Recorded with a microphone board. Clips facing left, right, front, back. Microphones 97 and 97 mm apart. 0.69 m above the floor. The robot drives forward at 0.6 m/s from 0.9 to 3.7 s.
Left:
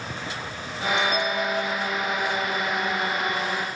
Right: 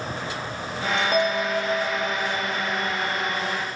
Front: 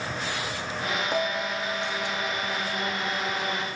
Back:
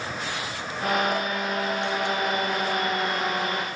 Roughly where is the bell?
Ahead right.